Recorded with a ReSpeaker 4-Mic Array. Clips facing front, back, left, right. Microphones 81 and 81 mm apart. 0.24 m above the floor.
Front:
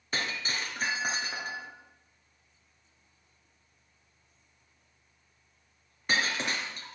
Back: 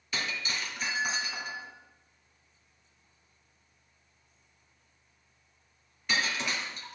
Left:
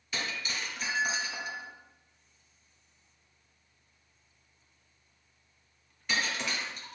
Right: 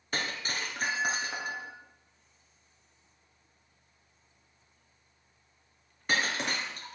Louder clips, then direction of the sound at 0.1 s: Front 1 dB, right 2 dB; 50° right.